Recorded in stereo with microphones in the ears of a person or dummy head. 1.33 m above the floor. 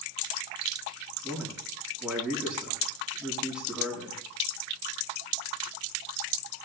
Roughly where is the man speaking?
Centre.